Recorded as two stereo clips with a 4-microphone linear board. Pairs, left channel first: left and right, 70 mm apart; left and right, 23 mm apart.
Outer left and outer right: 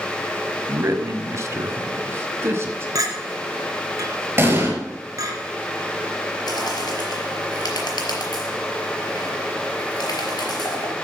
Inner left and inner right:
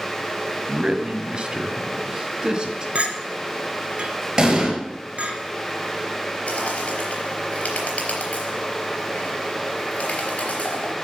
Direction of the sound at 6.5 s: 70° left (ahead or behind).